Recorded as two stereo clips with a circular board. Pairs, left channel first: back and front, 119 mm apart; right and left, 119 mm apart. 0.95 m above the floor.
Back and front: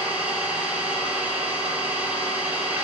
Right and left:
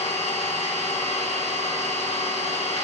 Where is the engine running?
75° right, 3 m.